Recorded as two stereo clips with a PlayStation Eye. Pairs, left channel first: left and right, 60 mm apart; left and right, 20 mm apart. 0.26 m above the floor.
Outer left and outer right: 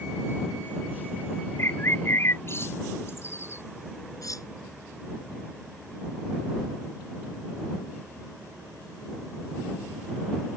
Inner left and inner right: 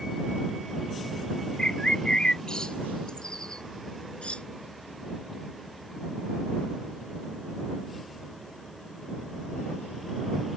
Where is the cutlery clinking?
75° left (ahead or behind).